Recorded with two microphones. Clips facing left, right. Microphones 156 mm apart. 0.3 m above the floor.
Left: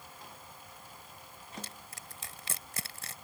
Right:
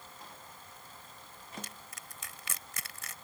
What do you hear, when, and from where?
1.6 s crushing: 35° left (ahead or behind)